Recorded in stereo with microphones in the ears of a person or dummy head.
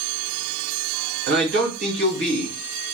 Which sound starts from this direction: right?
A man speaking, at 1.3 s.